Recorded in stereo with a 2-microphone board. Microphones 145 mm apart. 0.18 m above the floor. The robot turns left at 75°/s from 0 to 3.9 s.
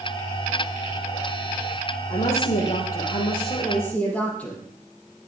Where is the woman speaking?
145° left, 5 m; by 4.6 s 10° left, 5 m.